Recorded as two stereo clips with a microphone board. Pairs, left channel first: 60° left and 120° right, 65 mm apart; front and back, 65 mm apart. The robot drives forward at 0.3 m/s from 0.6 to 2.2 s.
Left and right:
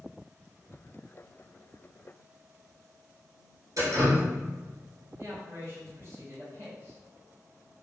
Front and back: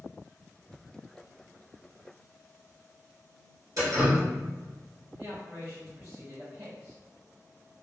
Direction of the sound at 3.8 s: 150° right.